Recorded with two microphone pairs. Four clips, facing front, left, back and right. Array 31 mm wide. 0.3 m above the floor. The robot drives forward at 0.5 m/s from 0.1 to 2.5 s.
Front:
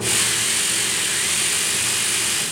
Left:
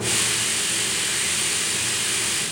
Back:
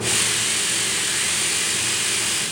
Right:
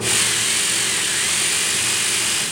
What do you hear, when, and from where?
Only background noise.